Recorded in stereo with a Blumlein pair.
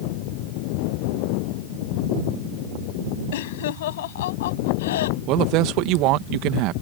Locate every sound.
3.3 s laughter: 55° left; by 5.2 s 60° left
5.3 s a woman speaking: 40° right